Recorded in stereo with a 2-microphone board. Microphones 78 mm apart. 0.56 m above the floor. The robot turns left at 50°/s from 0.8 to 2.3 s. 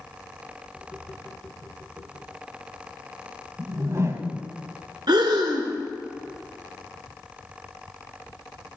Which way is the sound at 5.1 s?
65° right (ahead or behind).